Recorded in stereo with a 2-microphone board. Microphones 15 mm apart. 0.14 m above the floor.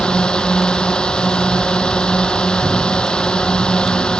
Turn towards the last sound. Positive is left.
turn(degrees=65)  # may be behind; listen again after turning